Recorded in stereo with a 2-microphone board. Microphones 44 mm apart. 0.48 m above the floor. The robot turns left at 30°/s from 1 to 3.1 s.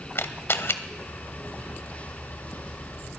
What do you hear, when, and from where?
0.1 s a camera shutter: 65° left (ahead or behind), 0.8 m